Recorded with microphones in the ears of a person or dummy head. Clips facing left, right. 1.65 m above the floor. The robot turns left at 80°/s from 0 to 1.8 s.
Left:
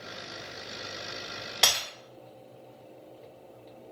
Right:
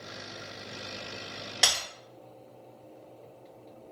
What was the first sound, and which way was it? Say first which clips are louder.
Breaking glass: left 2 dB; 5° right (ahead or behind).